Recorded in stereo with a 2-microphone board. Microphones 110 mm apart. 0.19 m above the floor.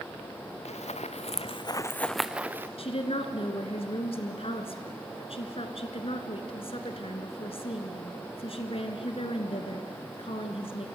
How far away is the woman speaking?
About 2 m.